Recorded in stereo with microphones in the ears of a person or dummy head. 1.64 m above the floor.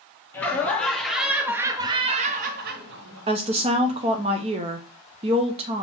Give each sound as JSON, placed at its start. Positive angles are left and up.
{"t": 0.3, "sound": "laughter", "side_deg": 15, "distance_m": 1.3}
{"t": 3.3, "sound": "a woman speaking", "side_deg": -30, "distance_m": 0.7}